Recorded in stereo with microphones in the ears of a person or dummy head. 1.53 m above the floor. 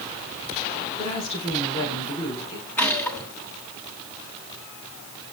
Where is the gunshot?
10° left (ahead or behind), 1.2 m.